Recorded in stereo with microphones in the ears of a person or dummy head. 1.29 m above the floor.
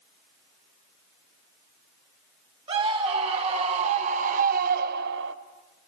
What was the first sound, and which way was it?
A scream, 35° right (ahead or behind).